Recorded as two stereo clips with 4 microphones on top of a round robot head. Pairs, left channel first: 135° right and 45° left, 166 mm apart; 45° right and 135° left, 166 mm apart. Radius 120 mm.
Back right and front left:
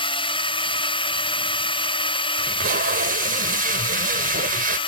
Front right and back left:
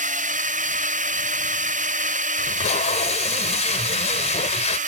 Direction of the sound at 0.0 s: 170° left.